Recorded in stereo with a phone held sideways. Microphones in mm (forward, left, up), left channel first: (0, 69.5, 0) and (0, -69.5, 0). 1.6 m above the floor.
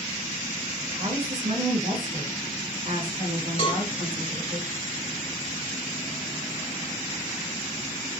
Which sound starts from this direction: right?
A woman speaking, at 0.9 s.